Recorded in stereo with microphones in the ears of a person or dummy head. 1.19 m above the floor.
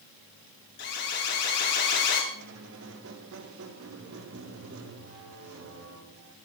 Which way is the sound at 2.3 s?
65° right (ahead or behind).